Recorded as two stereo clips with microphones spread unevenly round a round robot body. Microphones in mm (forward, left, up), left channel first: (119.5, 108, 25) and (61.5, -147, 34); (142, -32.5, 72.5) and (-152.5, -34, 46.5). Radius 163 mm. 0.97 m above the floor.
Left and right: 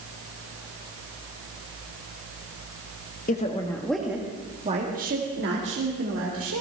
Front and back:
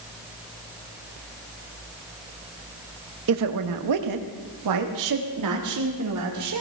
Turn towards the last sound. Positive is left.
turn(degrees=-150)